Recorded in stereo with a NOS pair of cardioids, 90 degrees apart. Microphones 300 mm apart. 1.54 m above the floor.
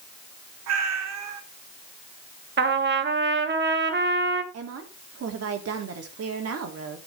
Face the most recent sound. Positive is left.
turn(degrees=-55)